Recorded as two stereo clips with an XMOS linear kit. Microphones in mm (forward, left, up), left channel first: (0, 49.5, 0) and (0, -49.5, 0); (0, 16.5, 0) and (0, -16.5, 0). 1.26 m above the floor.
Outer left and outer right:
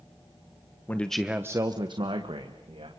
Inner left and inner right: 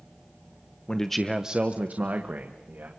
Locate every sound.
0.9 s a man speaking: 20° left (ahead or behind), 1.0 m; by 2.9 s 75° right (ahead or behind), 2 m